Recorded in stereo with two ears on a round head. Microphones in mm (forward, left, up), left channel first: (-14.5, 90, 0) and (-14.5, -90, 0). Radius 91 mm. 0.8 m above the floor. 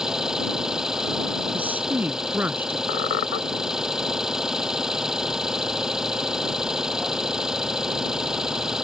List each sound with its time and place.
0.0 s an engine running: 5° right (ahead or behind)
1.5 s a woman speaking: 10° right (ahead or behind)
2.9 s a squeak: 45° left (ahead or behind)